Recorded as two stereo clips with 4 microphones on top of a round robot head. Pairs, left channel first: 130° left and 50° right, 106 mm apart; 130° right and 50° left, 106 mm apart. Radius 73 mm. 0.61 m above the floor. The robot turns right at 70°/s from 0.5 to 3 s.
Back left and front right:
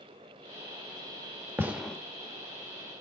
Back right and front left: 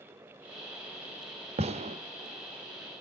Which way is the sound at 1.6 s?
20° left.